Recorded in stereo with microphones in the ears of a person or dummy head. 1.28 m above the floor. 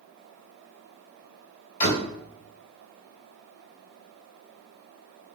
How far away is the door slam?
About 2.5 m.